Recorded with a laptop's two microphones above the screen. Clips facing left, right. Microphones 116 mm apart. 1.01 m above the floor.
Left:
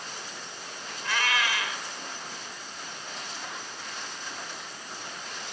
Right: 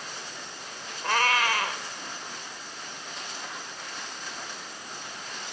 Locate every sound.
1.0 s a cat meowing: 45° right (ahead or behind), 2.5 m